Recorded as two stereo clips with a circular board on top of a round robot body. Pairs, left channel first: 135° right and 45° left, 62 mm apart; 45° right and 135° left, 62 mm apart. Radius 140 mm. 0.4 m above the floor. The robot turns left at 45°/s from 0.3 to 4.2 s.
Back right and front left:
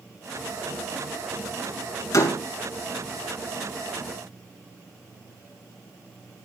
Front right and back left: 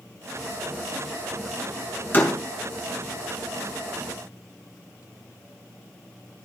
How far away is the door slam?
About 4 m.